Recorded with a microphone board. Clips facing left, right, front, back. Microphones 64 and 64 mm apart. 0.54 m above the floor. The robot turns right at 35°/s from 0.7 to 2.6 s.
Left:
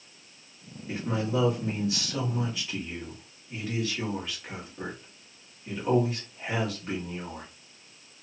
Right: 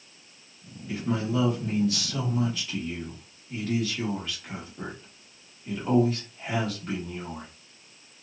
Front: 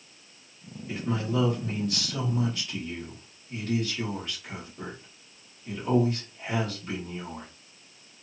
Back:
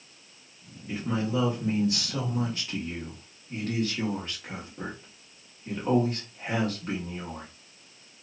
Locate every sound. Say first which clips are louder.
0.9 s a man speaking: right 1 dB, back 1 dB; 110° left, 1.0 m; by 7.5 s 170° left, 1.0 m